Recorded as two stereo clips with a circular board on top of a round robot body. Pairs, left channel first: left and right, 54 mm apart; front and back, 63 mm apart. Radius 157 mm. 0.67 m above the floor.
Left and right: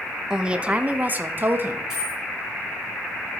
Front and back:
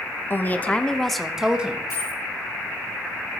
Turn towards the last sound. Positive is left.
turn(degrees=-10)